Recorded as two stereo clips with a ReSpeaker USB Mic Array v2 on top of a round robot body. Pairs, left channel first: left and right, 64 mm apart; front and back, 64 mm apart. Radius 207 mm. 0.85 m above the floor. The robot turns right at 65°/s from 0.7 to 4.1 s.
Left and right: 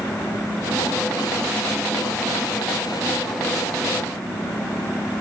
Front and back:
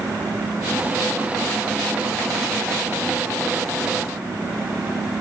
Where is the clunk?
No clunk in this recording.